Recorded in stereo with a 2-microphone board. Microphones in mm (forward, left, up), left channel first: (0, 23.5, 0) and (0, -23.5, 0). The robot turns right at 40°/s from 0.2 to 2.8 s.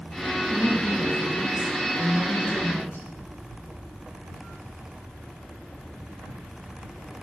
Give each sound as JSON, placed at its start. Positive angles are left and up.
{"t": 0.5, "sound": "a woman speaking", "azimuth_deg": 35, "distance_m": 3.5}